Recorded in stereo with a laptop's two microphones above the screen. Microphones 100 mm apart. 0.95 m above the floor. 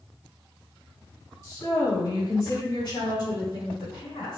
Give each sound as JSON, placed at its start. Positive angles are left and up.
{"t": 1.4, "sound": "a woman speaking", "side_deg": 25, "distance_m": 1.5}